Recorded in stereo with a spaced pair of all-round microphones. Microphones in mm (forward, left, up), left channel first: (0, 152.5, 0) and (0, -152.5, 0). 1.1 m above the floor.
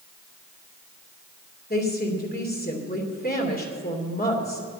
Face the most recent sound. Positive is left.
turn(degrees=30)  # may be behind; listen again after turning